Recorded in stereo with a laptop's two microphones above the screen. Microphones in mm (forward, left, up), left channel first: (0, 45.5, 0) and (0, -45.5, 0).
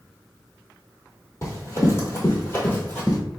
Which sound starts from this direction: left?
Running footsteps, at 1.4 s.